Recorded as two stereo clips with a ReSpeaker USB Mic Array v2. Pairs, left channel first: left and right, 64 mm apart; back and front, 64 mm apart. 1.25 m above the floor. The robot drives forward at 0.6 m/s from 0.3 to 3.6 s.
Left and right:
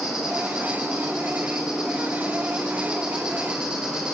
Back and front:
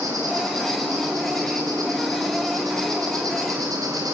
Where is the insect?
10° right, 6.5 m; by 4.1 s 15° right, 4.5 m.